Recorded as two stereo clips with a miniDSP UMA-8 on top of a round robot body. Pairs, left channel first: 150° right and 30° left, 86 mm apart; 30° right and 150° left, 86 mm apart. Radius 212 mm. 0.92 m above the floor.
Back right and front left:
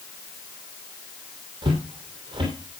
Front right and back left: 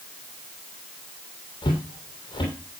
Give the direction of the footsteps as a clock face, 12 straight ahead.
12 o'clock.